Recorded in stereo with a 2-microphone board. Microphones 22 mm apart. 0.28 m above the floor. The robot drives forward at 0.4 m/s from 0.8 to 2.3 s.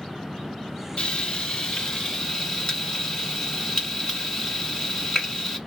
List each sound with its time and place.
1.0 s frying: 55° left (ahead or behind), 0.6 m; by 5.6 s 30° left (ahead or behind), 0.9 m